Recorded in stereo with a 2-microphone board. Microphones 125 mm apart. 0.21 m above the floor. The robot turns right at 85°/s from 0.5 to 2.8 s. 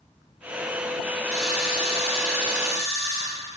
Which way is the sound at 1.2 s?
165° right.